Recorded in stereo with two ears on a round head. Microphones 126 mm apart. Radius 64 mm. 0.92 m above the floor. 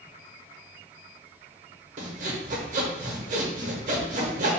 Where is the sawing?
50° right (ahead or behind), 0.8 m.